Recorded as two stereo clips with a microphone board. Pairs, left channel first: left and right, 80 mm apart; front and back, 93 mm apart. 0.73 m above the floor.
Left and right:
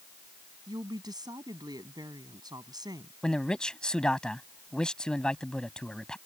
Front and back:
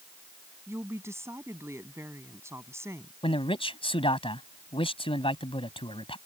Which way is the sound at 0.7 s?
120° right.